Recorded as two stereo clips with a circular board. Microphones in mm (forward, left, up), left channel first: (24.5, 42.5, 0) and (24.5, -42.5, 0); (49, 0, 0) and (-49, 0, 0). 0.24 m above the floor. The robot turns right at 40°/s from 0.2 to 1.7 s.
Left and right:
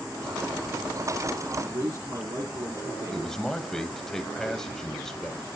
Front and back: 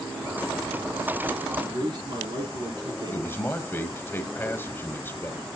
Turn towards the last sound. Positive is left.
turn(degrees=15)